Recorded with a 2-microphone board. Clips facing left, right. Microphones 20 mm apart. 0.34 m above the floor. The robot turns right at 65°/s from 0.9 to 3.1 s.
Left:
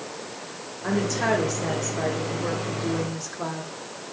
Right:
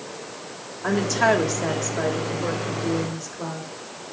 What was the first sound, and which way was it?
A woman speaking, 130° right.